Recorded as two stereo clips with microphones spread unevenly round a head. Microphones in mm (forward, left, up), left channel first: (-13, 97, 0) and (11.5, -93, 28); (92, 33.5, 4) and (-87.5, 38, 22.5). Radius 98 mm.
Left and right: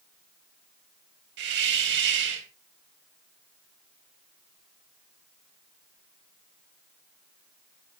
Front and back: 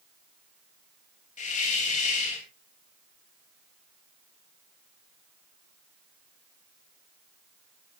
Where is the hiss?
55° right, 3 m.